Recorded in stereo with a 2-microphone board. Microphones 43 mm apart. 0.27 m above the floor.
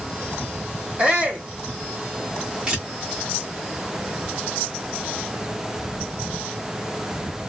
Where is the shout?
30° right (ahead or behind), 1.8 m.